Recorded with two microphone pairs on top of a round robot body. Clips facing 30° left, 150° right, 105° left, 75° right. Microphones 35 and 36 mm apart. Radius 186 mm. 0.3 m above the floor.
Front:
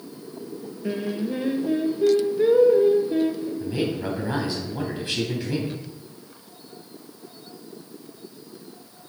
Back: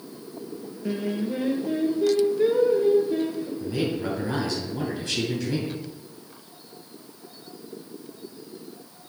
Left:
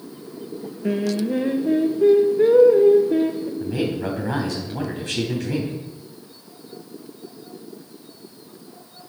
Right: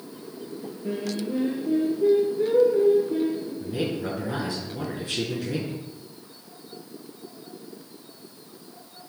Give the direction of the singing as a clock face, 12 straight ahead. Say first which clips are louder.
Even, left 7 dB; 9 o'clock.